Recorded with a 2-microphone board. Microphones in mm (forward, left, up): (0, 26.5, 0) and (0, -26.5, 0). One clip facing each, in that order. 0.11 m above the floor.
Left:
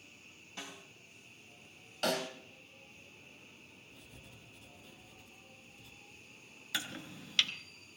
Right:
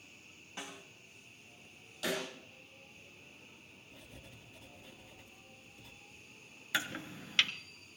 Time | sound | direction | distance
0.6 | a snare drum | 20° right (ahead or behind) | 5.5 m
2.0 | a snare drum | 60° left (ahead or behind) | 3 m
3.9 | writing | 45° right (ahead or behind) | 2.5 m
6.7 | chopping | 30° right (ahead or behind) | 0.8 m